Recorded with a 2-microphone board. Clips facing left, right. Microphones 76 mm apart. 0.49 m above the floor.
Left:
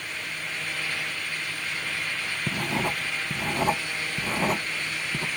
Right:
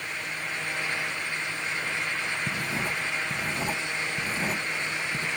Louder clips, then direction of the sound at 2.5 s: Left 2 dB; 55° left (ahead or behind).